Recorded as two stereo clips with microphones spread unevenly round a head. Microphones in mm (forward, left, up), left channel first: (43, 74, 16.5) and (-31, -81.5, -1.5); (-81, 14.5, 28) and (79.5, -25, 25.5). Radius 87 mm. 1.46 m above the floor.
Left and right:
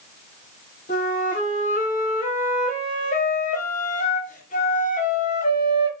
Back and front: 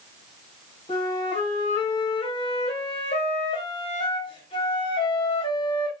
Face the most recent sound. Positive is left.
turn(degrees=105)